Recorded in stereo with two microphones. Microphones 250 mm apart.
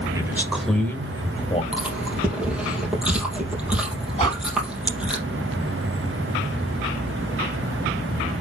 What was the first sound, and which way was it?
A man speaking, 15° right (ahead or behind).